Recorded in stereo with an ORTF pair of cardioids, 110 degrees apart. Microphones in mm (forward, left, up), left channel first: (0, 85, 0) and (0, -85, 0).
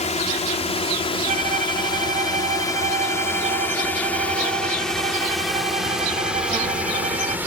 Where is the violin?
55° right.